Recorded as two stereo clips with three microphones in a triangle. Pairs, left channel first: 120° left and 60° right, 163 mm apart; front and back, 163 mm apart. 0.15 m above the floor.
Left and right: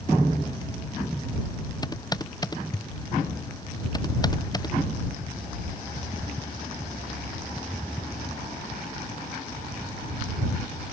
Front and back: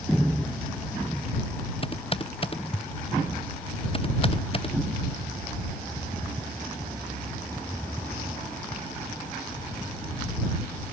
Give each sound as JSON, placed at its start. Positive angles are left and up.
{"t": 1.8, "sound": "typing on a keyboard", "azimuth_deg": 55}